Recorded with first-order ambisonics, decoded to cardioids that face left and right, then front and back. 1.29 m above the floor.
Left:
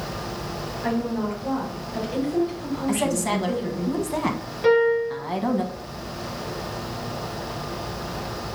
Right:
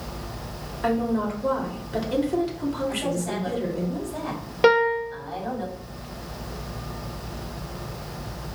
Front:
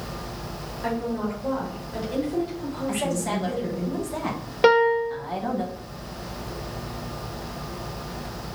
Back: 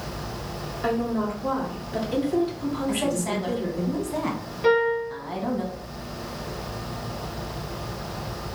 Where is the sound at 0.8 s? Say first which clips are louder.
Right 3 dB, back 2 dB; 100° right, 2.5 m.